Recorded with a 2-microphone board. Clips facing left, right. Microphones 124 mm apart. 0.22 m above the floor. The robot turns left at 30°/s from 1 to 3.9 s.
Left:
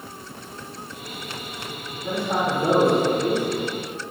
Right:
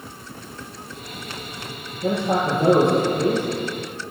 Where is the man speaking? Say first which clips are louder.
Right 3 dB; 100° right, 5.5 m; by 3.5 s 145° right, 5.5 m.